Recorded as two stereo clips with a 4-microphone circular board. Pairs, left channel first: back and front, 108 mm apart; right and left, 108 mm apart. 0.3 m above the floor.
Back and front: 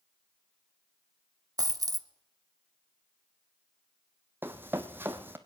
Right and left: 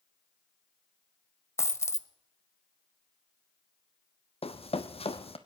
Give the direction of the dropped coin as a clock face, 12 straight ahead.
1 o'clock.